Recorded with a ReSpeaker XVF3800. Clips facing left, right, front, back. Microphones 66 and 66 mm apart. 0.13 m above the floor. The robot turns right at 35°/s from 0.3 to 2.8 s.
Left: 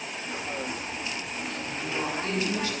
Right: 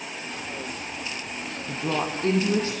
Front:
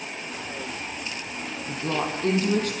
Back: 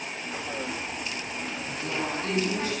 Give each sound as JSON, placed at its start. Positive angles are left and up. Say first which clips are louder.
{"t": 1.7, "sound": "a woman speaking", "louder": "right 5 dB, front 5 dB", "azimuth_deg": -65, "distance_m": 4.5}